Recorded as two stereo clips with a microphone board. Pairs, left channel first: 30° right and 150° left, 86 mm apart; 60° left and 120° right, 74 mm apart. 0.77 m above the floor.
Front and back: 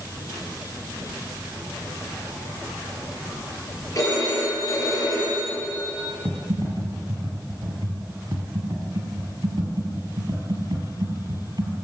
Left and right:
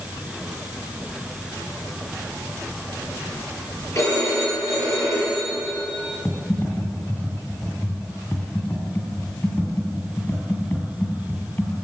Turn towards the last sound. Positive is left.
turn(degrees=120)